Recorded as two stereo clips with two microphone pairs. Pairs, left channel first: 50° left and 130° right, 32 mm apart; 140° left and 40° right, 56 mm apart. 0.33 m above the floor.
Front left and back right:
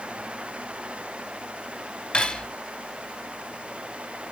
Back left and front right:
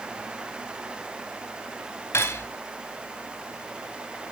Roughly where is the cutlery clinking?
Left.